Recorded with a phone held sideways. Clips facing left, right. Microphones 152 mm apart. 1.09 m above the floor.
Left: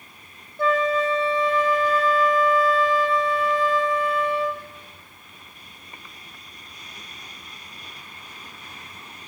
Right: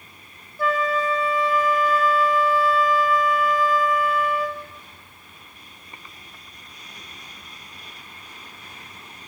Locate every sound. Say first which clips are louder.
0.6 s a flute: left 2 dB; 25° left (ahead or behind), 1.4 m